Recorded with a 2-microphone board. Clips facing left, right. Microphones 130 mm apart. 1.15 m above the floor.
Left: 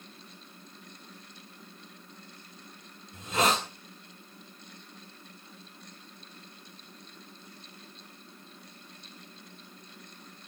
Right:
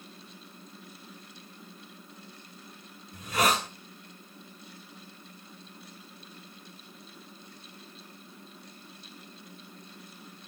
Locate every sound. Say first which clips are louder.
3.1 s a hiss: even; 20° left (ahead or behind), 3.5 m